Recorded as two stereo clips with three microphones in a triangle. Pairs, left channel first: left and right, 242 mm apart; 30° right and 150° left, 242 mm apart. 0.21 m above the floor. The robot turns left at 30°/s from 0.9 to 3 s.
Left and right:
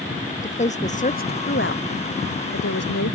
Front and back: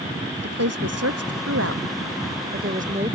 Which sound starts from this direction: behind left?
A woman speaking, at 0.4 s.